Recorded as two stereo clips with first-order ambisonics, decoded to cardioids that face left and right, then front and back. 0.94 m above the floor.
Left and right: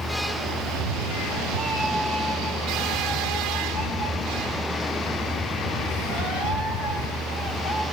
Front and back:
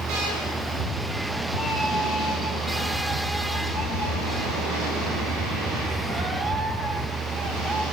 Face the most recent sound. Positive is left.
turn(degrees=40)